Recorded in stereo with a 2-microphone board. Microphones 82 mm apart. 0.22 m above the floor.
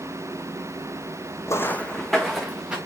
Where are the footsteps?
35° left (ahead or behind), 0.7 m; by 2.8 s 10° right (ahead or behind), 1.9 m.